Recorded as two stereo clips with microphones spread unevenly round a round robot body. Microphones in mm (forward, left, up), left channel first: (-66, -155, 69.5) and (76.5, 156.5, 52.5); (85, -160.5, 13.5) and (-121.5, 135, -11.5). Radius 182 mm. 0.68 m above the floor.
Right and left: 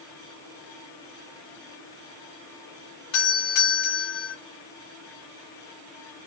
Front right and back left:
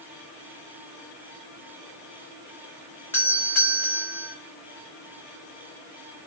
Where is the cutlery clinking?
No cutlery clinking in this recording.